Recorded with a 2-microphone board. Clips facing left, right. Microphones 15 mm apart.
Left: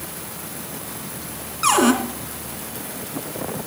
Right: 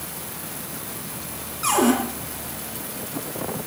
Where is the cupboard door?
30° left (ahead or behind), 2.5 m.